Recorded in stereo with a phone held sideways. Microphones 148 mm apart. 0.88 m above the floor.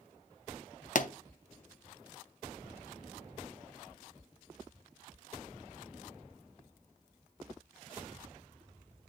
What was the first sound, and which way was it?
A pop, 60° left (ahead or behind).